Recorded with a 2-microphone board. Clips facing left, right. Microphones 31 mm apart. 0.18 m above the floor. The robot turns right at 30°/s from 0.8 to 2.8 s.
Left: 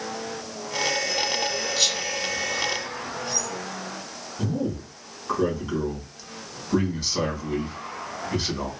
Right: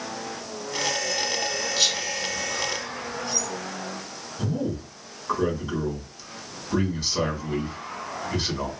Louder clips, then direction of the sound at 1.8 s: Right 1 dB; 5° right (ahead or behind).